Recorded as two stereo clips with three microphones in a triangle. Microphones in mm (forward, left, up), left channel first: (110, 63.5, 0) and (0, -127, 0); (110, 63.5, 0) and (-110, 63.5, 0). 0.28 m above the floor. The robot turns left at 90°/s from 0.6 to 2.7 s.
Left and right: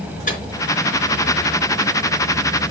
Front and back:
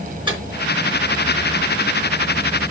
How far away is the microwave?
About 4 m.